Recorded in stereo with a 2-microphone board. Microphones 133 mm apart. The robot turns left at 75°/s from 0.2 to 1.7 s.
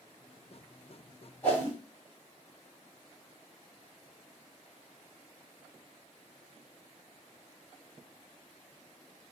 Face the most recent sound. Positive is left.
turn(degrees=25)  # may be behind; listen again after turning